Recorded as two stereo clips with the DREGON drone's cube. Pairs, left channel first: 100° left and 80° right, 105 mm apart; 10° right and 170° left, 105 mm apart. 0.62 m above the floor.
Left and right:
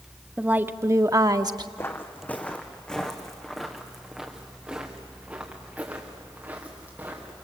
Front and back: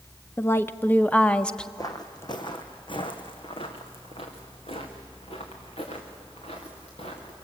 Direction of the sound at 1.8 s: 40° left.